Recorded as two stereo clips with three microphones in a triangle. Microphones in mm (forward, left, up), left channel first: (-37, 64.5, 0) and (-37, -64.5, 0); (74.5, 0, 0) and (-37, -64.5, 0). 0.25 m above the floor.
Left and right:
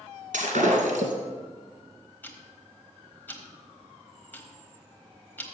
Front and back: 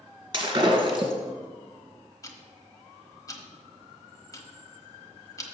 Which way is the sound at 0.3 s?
95° right.